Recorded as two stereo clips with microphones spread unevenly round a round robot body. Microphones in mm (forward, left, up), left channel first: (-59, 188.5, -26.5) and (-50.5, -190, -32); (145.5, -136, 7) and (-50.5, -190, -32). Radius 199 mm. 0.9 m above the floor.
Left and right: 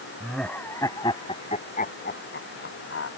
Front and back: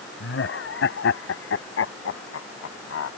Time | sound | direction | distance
0.2 | laughter | straight ahead | ?